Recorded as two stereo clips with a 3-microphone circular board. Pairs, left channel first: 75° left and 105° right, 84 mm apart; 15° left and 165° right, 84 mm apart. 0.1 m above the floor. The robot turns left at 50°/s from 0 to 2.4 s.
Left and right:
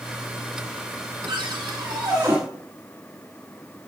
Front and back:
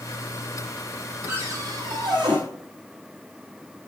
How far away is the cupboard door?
About 4 m.